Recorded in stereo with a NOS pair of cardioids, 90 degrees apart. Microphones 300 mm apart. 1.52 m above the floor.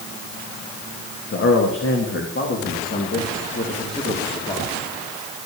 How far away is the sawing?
No sawing in this recording.